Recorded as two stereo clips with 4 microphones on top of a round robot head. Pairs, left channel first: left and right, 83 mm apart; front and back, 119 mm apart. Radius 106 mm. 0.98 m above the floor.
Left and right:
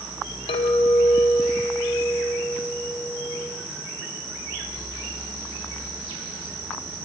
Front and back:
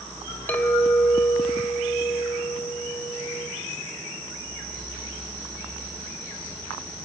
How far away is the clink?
About 3 m.